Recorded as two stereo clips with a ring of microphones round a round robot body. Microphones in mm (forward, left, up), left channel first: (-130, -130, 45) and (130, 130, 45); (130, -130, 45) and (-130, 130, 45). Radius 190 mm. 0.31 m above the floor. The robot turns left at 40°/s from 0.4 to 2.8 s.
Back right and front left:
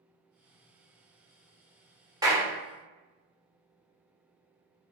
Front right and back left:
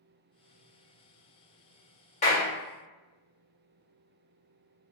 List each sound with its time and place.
2.2 s a clap: 15° right, 1.0 m; by 2.5 s 30° right, 1.0 m